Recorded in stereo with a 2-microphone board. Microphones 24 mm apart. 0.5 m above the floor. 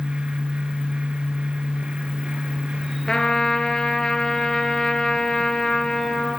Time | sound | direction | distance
3.1 | a trumpet | 35° left (ahead or behind) | 4.5 m